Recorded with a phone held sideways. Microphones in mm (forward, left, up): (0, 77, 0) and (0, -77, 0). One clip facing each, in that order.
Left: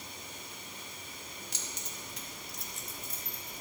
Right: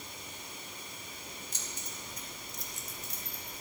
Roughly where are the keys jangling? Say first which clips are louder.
Even; left.